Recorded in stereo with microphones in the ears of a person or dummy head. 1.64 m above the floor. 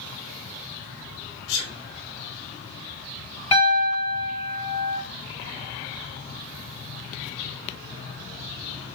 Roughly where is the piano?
Centre.